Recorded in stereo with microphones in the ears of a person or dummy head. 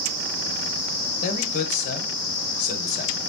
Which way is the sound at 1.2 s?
45° left (ahead or behind).